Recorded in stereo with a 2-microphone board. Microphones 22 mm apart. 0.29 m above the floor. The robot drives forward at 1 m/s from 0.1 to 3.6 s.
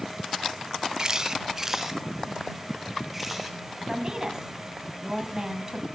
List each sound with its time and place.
1.0 s a camera shutter: 35° right (ahead or behind), 0.8 m; by 3.6 s 10° right (ahead or behind), 3 m
3.9 s a woman speaking: 30° right (ahead or behind), 2.5 m